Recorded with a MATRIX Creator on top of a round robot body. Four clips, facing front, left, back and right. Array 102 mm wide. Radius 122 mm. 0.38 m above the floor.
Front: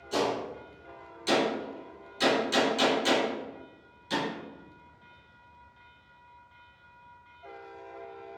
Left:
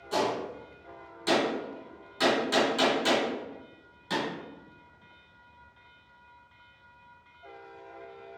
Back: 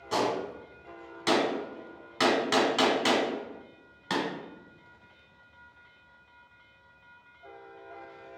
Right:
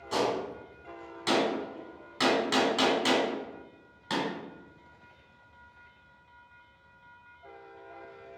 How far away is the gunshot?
About 1.5 m.